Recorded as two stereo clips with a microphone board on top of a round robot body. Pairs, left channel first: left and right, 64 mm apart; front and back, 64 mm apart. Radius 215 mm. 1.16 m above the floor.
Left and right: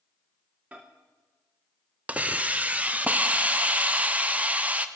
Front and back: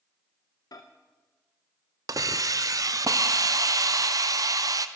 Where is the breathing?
No breathing in this recording.